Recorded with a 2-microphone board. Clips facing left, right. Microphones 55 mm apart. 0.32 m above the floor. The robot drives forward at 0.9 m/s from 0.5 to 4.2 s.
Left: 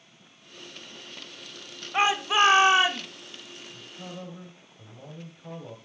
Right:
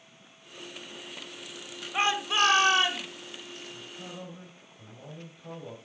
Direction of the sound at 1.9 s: 20° left (ahead or behind).